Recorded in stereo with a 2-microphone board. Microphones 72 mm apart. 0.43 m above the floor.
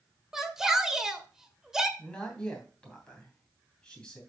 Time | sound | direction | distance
0.3 | a shout | 5° right (ahead or behind) | 1.6 m
2.0 | a man speaking | 15° left (ahead or behind) | 2.5 m